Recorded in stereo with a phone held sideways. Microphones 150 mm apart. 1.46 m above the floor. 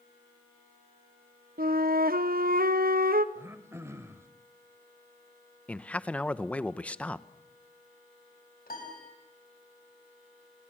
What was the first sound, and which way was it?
A flute, 80° right.